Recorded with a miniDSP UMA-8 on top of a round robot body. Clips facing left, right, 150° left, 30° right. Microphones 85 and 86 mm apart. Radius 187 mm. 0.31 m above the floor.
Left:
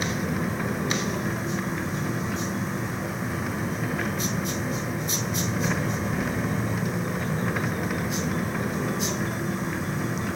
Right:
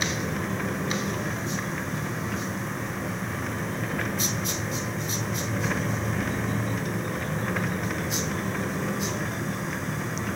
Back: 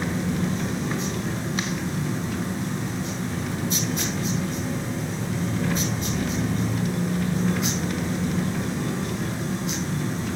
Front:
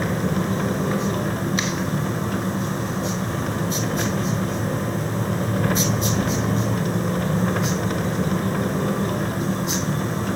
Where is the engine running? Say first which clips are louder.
Left 2 dB, front 3 dB; 5° left, 1.6 m.